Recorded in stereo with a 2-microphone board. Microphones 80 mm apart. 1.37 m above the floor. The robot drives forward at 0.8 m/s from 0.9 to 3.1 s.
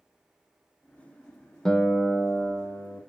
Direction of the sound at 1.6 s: 10° left (ahead or behind).